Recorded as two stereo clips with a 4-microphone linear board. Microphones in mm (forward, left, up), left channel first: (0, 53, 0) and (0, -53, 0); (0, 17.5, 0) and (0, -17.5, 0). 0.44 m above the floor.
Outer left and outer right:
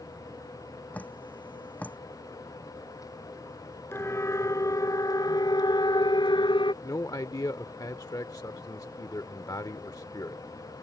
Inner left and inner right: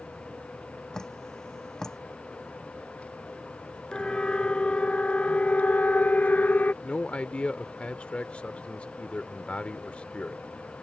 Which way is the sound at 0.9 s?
15° left (ahead or behind).